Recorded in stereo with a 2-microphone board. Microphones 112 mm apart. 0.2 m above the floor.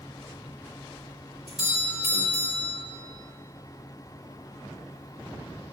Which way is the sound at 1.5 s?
70° right (ahead or behind).